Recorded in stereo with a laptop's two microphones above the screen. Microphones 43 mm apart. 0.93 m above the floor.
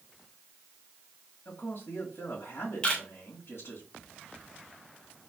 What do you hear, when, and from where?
1.4 s a man speaking: 65° left (ahead or behind), 2 m
2.8 s a camera shutter: 25° left (ahead or behind), 1.6 m